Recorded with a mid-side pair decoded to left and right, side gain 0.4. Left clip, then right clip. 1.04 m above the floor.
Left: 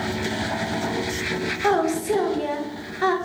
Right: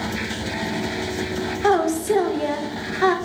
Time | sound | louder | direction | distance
1.6 | a woman speaking | right 3 dB | 25° right | 0.6 m